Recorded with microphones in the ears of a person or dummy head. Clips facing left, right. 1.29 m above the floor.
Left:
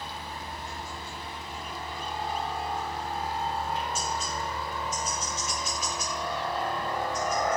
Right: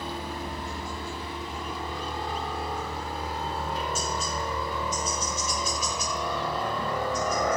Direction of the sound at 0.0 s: 55° right (ahead or behind).